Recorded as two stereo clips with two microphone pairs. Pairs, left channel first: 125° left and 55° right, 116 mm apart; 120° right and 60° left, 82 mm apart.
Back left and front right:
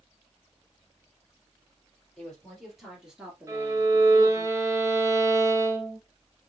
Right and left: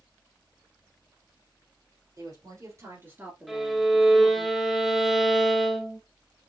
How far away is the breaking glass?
I don't hear breaking glass.